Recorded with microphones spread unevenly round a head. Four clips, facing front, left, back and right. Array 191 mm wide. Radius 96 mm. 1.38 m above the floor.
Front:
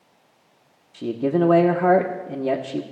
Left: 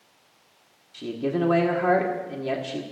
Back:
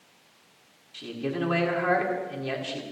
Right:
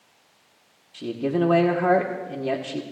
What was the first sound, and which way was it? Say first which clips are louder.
A man speaking: right 2 dB, front 10 dB; 15° right.